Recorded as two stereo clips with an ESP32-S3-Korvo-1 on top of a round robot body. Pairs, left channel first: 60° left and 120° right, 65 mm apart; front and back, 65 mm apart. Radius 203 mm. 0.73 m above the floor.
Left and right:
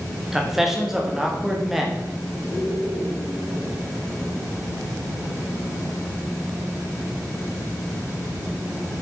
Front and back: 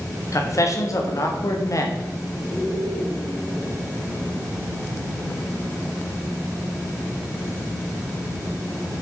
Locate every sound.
0.3 s a man speaking: 35° right, 1.6 m